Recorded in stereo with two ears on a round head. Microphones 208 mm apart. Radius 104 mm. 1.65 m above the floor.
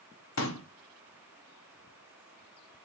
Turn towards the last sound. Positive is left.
turn(degrees=60)  # may be behind; listen again after turning